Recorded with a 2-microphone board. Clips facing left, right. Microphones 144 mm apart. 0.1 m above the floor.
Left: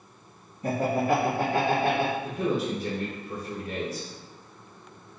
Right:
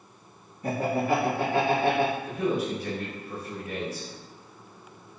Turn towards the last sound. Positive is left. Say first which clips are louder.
# even
turn(degrees=30)  # may be behind; listen again after turning